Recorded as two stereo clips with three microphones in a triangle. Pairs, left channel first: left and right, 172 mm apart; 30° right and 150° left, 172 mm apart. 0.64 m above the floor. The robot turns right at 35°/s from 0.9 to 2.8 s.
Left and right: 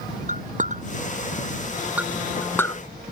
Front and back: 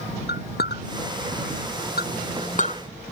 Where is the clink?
50° right; by 2.8 s 20° left.